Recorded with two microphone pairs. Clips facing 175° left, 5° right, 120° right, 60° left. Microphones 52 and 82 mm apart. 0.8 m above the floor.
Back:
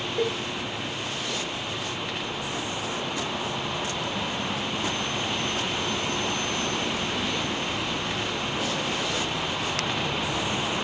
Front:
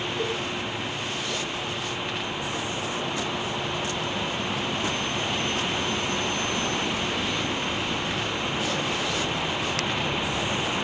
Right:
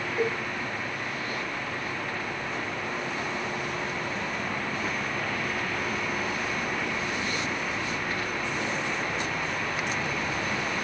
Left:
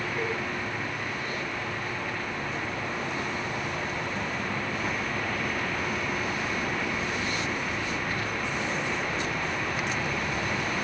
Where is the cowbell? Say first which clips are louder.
Back 4 dB, right 5 dB; 160° left, 2.5 m.